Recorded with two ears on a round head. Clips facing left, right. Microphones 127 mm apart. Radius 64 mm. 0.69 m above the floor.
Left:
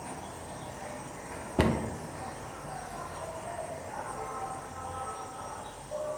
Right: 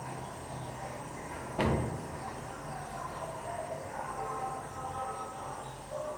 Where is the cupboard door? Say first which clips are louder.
Left 3 dB; 55° left (ahead or behind), 0.5 m.